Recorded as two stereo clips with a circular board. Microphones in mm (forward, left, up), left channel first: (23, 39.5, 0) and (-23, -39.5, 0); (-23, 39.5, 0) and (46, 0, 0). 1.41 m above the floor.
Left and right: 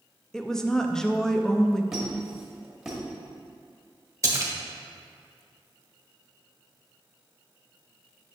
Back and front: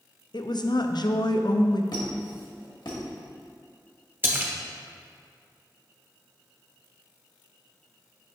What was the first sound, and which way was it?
A woman speaking, 145° left.